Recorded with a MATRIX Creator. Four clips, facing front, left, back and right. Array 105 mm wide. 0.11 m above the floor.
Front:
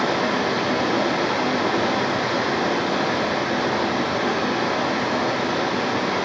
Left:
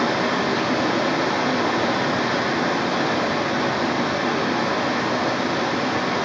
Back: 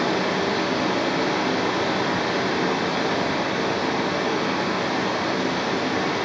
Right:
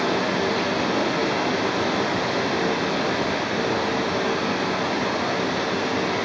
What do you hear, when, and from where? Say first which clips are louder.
0.0 s running water: left 1 dB, front 1 dB; 55° left, 3 m